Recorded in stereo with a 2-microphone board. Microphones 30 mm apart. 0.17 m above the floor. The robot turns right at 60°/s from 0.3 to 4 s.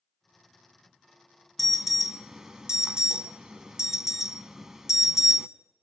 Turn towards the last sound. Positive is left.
turn(degrees=-15)  # may be behind; listen again after turning